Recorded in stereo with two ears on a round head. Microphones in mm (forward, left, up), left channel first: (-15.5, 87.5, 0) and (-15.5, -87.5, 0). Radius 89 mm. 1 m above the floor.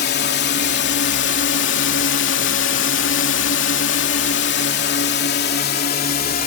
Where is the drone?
60° left (ahead or behind); by 6.5 s 45° left (ahead or behind).